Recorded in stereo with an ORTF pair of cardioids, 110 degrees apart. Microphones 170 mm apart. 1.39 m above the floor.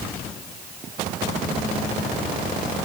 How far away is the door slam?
I don't hear a door slam.